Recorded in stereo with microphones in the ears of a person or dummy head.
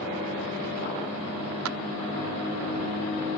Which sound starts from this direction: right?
A clap, at 1.6 s.